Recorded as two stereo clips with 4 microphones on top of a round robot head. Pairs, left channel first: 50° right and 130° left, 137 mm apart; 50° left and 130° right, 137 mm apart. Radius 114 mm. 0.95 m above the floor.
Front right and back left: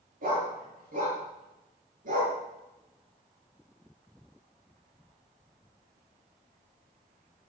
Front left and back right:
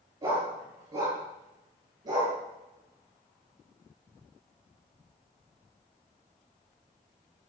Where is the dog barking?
160° left, 8 m; by 2.4 s 165° left, 6 m.